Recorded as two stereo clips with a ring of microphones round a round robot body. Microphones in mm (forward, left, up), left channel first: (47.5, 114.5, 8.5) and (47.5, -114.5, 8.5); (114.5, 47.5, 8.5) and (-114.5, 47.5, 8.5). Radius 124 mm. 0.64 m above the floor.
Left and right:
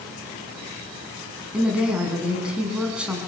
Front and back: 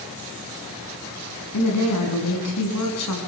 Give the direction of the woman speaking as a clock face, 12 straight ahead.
12 o'clock.